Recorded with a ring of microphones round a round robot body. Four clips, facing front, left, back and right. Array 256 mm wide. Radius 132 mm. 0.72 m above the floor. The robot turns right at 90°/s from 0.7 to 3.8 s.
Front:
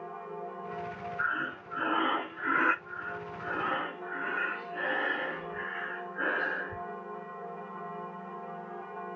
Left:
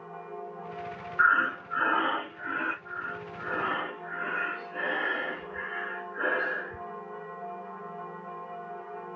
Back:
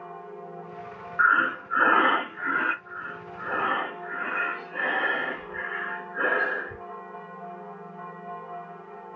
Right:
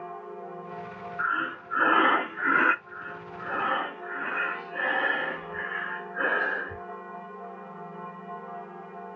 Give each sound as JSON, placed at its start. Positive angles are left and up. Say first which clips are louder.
{"t": 1.2, "sound": "breathing", "louder": "left 6 dB, back 13 dB", "azimuth_deg": 145, "distance_m": 0.5}
{"t": 2.9, "sound": "breathing", "louder": "left 2 dB, back 1 dB", "azimuth_deg": 120, "distance_m": 1.9}